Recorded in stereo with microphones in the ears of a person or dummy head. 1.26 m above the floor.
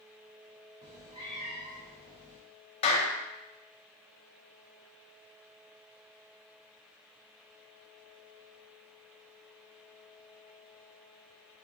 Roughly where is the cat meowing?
Right.